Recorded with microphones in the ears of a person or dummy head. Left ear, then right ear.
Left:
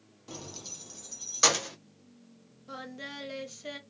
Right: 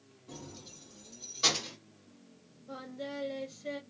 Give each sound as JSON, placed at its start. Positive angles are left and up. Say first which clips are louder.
{"t": 0.3, "sound": "keys jangling", "louder": "left 6 dB", "side_deg": 50, "distance_m": 0.6}
{"t": 2.7, "sound": "singing", "louder": "even", "side_deg": 40, "distance_m": 0.7}